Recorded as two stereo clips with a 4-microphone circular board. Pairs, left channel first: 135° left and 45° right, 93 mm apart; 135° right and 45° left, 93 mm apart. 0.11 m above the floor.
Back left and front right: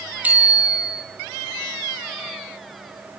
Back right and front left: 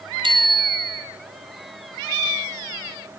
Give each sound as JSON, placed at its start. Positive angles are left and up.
{"t": 0.2, "sound": "a bicycle bell", "azimuth_deg": 25, "distance_m": 2.5}